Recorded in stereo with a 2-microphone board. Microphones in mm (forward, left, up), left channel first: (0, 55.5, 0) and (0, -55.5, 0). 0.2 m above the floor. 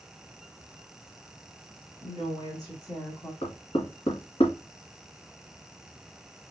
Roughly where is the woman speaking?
Left.